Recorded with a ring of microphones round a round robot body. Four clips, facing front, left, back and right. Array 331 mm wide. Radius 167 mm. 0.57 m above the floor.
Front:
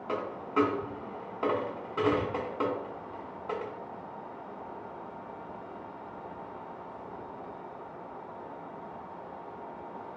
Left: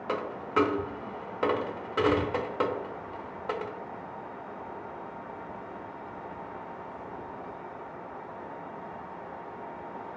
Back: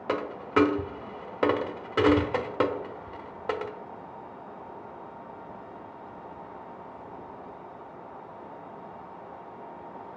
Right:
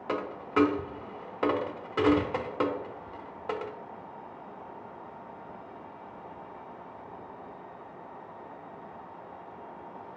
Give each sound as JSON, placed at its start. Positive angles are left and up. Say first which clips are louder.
{"t": 0.1, "sound": "a dropped coin", "louder": "even, back 5 dB", "azimuth_deg": 180, "distance_m": 0.5}